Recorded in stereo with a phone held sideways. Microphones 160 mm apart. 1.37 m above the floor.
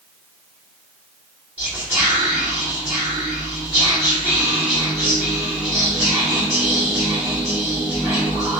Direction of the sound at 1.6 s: 15° right (ahead or behind).